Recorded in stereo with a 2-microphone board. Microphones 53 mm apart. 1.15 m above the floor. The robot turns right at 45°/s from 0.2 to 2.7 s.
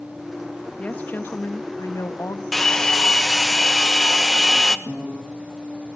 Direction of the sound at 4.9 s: 25° right (ahead or behind).